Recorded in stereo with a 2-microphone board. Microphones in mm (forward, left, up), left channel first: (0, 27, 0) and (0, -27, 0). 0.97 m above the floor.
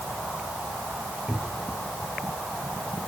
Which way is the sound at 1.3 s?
15° right (ahead or behind).